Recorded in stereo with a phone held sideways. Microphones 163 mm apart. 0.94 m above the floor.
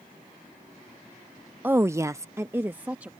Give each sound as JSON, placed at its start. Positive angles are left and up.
{"t": 1.6, "sound": "a woman speaking", "side_deg": -10}